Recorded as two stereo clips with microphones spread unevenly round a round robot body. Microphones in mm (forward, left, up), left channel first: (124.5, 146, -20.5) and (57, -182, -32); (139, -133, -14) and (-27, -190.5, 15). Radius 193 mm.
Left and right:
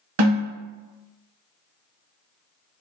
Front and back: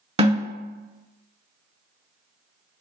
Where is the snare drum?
100° right, 1.0 m.